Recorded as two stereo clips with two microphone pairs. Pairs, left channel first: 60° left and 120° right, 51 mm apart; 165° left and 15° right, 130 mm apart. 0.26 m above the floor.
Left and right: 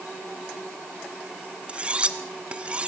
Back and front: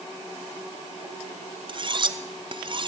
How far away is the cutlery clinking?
About 1.5 m.